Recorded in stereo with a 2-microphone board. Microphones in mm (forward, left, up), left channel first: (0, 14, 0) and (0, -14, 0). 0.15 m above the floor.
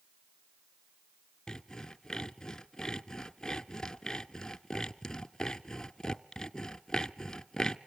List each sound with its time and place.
1.5 s sawing: 20° left (ahead or behind), 0.7 m